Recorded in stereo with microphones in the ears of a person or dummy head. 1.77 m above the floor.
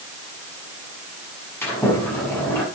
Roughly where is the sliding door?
Centre.